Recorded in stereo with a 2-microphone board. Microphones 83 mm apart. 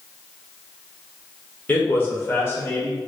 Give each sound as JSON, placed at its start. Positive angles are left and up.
{"t": 1.7, "sound": "a man speaking", "side_deg": 20, "distance_m": 0.9}